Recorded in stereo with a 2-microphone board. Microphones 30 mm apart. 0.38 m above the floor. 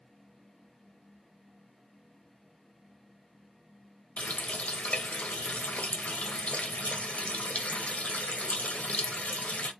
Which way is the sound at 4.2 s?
55° left (ahead or behind).